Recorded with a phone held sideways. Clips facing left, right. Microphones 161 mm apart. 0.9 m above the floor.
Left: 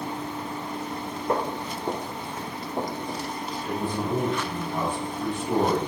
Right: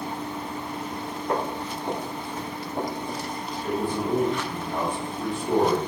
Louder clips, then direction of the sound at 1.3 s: Left 1 dB; 30° left (ahead or behind).